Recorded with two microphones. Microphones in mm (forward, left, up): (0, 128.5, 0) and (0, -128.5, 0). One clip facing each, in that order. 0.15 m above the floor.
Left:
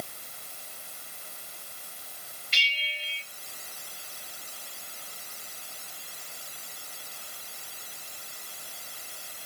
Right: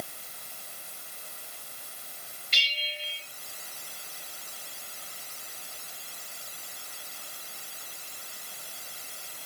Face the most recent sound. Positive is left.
turn(degrees=-50)  # may be behind; listen again after turning